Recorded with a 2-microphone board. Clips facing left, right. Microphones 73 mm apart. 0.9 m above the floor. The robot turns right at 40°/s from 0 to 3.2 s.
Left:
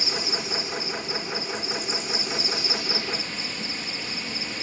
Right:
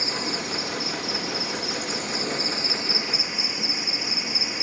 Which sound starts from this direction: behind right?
An insect, at 0.0 s.